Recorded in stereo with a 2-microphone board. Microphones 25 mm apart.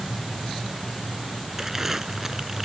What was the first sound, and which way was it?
Crumpling, 15° right (ahead or behind).